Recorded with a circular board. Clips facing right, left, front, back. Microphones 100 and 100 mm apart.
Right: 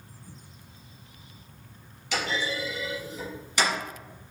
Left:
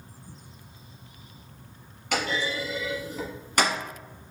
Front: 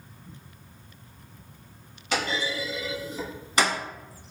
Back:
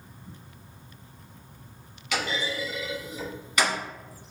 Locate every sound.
2.1 s a clunk: 55° left, 1.3 m